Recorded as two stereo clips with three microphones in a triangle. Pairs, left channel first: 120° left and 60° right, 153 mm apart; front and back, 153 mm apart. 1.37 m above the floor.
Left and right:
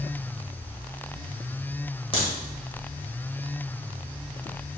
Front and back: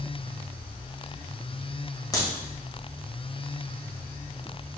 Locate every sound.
2.1 s a crack: 65° left, 1.5 m